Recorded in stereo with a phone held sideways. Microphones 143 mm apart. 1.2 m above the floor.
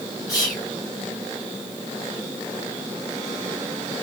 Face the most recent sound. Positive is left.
turn(degrees=25)  # may be behind; listen again after turning